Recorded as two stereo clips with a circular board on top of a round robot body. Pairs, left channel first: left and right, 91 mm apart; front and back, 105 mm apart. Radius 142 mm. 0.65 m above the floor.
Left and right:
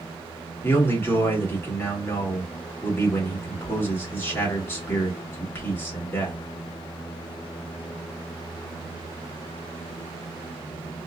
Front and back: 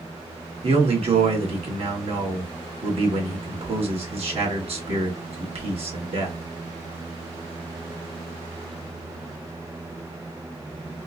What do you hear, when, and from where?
0.6 s a man speaking: 160° left, 2.5 m